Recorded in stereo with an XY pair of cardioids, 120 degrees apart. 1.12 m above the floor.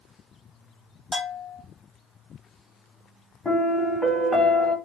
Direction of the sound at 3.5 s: 15° left.